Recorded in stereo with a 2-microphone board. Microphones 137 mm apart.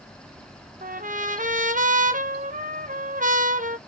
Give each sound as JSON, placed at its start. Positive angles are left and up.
{"t": 0.8, "sound": "a trumpet", "side_deg": -75, "distance_m": 1.4}